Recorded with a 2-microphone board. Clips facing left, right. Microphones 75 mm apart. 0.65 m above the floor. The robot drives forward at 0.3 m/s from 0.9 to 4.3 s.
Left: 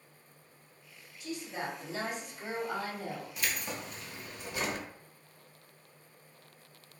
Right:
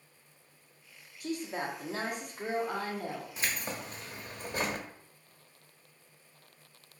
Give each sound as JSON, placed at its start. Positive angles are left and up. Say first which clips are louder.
{"t": 1.2, "sound": "a woman speaking", "louder": "right 3 dB", "side_deg": -50, "distance_m": 0.9}
{"t": 3.4, "sound": "keys jangling", "louder": "right 1 dB", "side_deg": -35, "distance_m": 0.7}